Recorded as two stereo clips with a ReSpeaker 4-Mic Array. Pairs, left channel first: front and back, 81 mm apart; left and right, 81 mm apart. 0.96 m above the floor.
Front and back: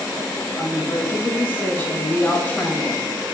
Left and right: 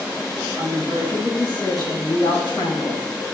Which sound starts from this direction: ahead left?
A woman speaking, at 0.6 s.